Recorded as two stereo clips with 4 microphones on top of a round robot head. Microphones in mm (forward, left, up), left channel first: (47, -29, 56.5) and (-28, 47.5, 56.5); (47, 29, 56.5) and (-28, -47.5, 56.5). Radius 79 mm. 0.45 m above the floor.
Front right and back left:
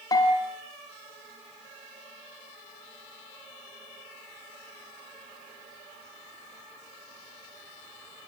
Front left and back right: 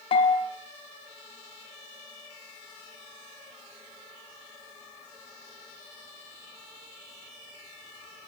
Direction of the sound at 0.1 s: 10° left.